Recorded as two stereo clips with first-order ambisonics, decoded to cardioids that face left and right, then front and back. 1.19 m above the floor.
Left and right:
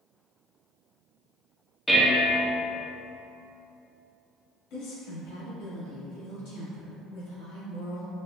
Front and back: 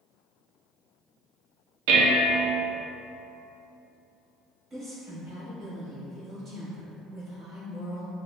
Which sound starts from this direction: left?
A woman speaking, at 4.7 s.